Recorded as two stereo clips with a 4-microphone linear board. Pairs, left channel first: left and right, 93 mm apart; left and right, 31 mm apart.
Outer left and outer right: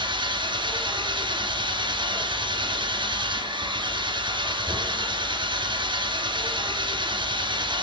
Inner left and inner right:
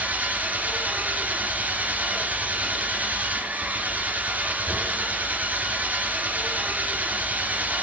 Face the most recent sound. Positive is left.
turn(degrees=-60)  # may be behind; listen again after turning